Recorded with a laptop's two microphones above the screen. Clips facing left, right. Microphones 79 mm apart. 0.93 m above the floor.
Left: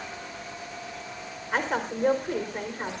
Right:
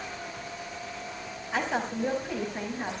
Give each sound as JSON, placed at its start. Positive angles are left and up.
{"t": 1.5, "sound": "a woman speaking", "side_deg": 55, "distance_m": 3.5}